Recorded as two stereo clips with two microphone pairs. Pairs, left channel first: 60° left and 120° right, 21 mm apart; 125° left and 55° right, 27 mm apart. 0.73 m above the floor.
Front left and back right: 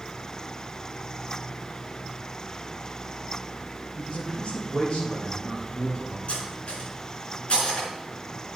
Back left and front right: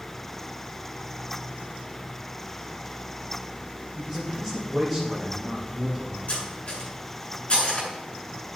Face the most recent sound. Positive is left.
turn(degrees=85)